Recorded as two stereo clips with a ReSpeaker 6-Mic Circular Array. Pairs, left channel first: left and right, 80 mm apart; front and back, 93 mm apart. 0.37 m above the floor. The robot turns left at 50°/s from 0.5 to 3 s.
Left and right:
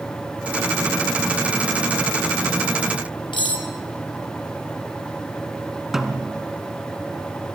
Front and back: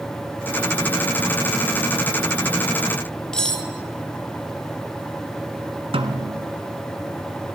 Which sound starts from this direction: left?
Cutlery clinking, at 3.3 s.